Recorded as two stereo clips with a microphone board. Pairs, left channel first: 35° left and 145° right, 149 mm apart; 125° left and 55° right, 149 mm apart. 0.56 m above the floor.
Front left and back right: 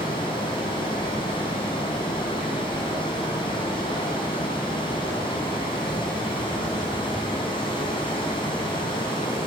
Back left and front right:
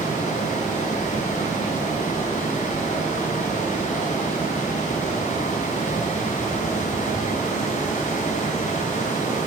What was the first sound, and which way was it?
Running water, 90° left.